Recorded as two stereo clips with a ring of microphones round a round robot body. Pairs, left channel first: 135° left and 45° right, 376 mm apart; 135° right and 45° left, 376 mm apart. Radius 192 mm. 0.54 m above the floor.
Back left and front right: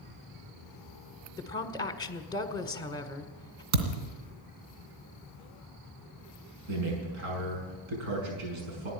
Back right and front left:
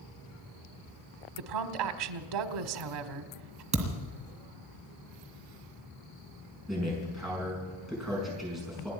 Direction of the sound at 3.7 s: 30° right.